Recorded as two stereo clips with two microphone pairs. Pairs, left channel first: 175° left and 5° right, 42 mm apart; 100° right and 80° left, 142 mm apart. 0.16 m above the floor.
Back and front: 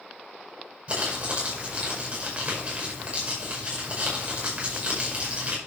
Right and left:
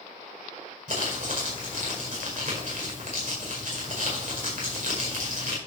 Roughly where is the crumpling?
Ahead left.